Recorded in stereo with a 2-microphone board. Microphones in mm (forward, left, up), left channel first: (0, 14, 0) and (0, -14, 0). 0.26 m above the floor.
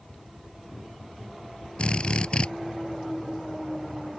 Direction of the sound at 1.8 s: 40° left (ahead or behind).